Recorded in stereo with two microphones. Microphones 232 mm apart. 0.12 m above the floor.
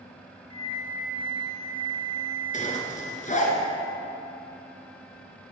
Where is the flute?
20° left (ahead or behind), 1.5 m.